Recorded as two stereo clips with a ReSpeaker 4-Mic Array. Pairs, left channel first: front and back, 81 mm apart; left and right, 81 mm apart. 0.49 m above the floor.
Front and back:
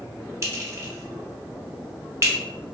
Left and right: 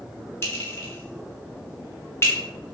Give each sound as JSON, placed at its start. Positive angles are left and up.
{"t": 0.4, "sound": "a clink", "azimuth_deg": 135, "distance_m": 0.8}